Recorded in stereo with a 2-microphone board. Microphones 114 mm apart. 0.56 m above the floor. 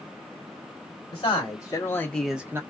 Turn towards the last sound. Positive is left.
turn(degrees=-25)  # may be behind; listen again after turning